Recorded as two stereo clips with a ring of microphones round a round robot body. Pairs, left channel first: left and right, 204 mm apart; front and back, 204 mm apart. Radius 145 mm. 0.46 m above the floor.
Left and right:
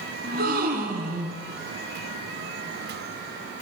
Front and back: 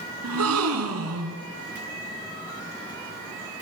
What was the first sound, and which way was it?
A gasp, 150° right.